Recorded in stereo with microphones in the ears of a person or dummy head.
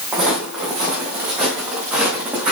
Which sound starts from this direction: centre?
Footsteps, at 0.1 s.